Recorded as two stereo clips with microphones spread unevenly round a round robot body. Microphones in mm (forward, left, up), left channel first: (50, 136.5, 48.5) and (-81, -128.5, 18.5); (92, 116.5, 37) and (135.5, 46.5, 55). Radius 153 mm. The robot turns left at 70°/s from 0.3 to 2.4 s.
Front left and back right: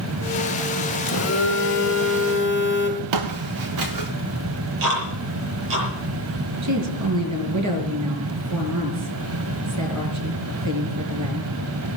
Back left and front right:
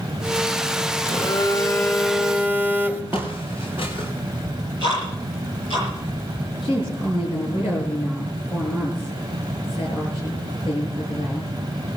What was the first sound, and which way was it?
A phone buzzing, 110° left.